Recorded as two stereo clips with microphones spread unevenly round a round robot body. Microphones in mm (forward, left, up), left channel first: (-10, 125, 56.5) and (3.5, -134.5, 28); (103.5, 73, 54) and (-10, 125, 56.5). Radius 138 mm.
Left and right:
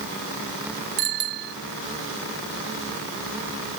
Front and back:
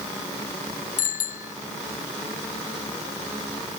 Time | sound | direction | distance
1.0 | a bicycle bell | 35° right | ?